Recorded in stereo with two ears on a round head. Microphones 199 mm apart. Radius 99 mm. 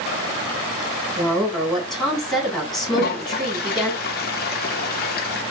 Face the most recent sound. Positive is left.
turn(degrees=45)  # may be behind; listen again after turning